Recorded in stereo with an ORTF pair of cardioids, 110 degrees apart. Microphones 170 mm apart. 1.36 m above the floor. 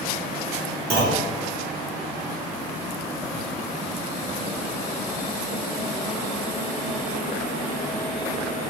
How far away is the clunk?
About 1.1 m.